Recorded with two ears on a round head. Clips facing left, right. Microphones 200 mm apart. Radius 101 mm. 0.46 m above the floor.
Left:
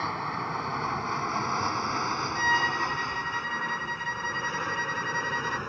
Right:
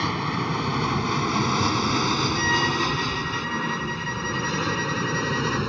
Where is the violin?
5° right (ahead or behind).